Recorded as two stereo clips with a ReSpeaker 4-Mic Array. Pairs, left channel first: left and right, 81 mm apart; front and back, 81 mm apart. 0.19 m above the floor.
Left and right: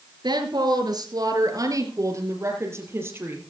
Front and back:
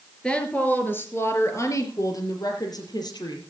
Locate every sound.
0.2 s a woman speaking: 75° right, 3.5 m; by 3.4 s 25° right, 5.5 m